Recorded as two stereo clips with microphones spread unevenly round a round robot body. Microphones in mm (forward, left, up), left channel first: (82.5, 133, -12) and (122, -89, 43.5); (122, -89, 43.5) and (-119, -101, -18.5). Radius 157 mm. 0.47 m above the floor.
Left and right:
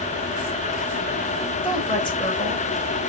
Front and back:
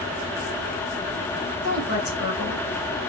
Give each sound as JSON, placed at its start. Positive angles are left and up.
{"t": 1.6, "sound": "a woman speaking", "azimuth_deg": 40, "distance_m": 2.5}